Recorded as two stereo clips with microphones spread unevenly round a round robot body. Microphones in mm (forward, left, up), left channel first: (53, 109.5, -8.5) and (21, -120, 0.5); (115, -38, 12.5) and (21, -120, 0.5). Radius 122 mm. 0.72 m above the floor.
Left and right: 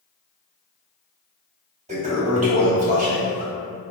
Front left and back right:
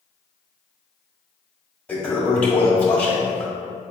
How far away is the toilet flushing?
About 1.4 m.